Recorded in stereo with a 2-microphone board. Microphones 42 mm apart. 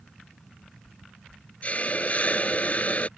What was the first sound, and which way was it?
A hiss, 35° left (ahead or behind).